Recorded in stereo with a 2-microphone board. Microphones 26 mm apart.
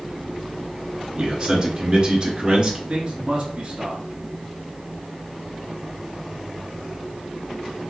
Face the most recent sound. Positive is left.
turn(degrees=-35)  # may be behind; listen again after turning